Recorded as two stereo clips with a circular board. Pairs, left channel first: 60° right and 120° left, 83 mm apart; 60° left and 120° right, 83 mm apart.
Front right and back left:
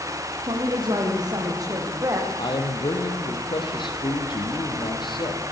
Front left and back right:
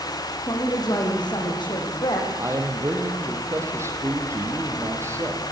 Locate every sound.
0.5 s a woman speaking: 95° left, 6 m; by 2.3 s 75° left, 6.5 m
2.4 s a man speaking: 65° right, 4.5 m